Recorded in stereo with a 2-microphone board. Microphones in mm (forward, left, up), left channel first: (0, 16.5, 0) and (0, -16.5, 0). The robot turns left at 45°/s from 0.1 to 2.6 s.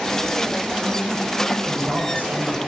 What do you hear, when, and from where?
1.6 s a man speaking: 85° right, 7.5 m; by 2.6 s 130° right, 7.5 m